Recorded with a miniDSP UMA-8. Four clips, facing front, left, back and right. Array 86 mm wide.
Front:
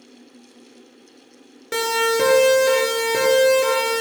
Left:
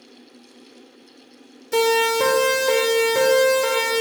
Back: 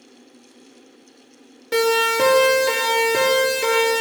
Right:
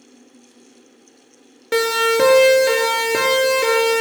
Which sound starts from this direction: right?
A siren, at 1.7 s.